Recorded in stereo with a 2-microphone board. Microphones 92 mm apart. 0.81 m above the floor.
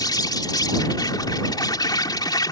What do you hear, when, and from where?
0.0 s an insect: 50° left (ahead or behind)